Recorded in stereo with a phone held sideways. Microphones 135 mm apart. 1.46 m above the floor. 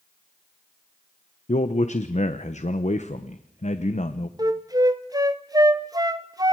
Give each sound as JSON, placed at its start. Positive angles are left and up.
{"t": 1.5, "sound": "a man speaking", "side_deg": 60, "distance_m": 1.0}
{"t": 4.4, "sound": "a flute", "side_deg": -25, "distance_m": 1.0}